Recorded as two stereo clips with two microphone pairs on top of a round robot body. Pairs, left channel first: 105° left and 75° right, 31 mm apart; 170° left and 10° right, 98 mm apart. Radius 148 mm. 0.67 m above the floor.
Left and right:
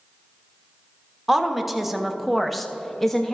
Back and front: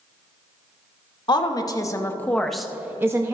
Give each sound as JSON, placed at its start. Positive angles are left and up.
{"t": 1.3, "sound": "a woman speaking", "azimuth_deg": -160, "distance_m": 1.2}